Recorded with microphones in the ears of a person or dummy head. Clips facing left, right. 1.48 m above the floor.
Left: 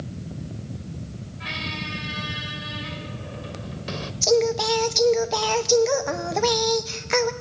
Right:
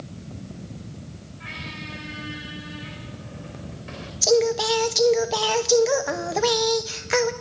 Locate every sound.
1.4 s a squeak: 55° left (ahead or behind), 2 m
4.2 s singing: 10° right (ahead or behind), 0.9 m